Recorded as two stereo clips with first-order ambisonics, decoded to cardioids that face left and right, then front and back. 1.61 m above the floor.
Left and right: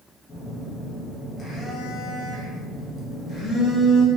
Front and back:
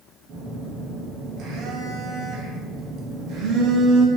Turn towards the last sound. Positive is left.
turn(degrees=150)